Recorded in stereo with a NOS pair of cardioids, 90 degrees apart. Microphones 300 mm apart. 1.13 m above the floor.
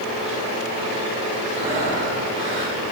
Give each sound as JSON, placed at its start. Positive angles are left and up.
{"t": 1.5, "sound": "breathing", "azimuth_deg": -40, "distance_m": 7.0}